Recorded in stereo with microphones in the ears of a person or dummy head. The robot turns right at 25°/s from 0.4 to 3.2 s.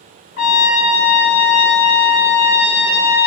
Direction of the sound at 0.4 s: 85° left.